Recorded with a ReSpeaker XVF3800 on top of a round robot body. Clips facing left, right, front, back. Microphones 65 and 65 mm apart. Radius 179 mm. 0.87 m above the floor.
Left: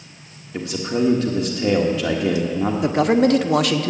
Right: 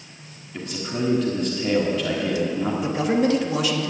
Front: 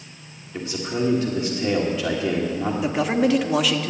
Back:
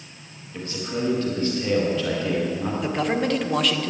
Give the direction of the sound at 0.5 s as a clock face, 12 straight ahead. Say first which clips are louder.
Left 6 dB, front 3 dB; 10 o'clock.